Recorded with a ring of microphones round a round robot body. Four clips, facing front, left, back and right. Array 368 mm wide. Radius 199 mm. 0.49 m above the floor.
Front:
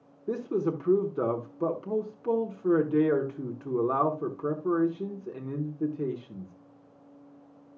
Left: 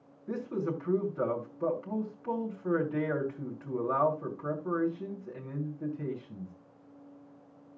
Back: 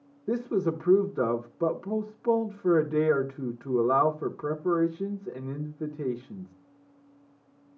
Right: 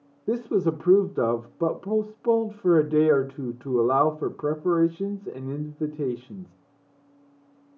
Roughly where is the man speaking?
Right.